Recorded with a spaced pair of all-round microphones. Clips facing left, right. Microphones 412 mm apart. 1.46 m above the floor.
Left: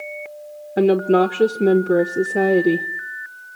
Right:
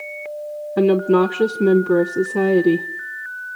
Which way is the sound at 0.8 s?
10° right (ahead or behind).